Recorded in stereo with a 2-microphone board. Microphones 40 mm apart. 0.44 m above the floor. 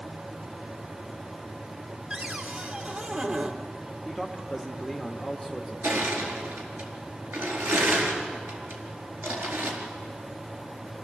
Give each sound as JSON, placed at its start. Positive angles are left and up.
{"t": 2.1, "sound": "a cupboard door", "side_deg": -35, "distance_m": 1.5}
{"t": 4.0, "sound": "a man speaking", "side_deg": 0, "distance_m": 1.1}
{"t": 5.8, "sound": "crushing", "side_deg": -80, "distance_m": 4.0}